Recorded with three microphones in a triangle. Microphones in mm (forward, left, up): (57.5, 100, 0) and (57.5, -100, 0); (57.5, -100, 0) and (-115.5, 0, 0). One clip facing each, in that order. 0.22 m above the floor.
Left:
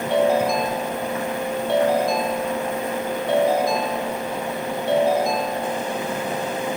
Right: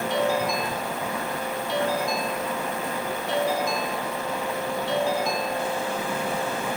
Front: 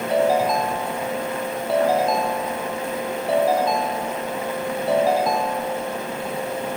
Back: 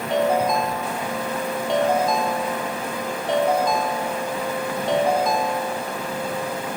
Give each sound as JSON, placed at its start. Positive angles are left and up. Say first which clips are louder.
{"t": 0.1, "sound": "a ringtone", "louder": "left 7 dB, front 1 dB", "azimuth_deg": 55, "distance_m": 2.5}